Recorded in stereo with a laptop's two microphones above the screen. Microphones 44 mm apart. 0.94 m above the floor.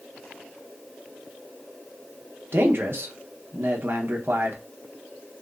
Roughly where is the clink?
No clink in this recording.